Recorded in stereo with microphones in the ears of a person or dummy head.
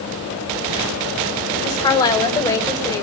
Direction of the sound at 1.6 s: 20° left (ahead or behind).